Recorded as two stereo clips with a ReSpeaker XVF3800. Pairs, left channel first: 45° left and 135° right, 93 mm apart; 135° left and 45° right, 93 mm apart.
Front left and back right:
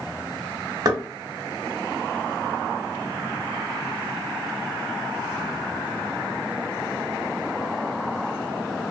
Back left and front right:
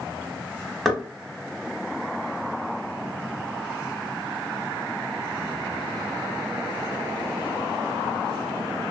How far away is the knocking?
About 0.8 m.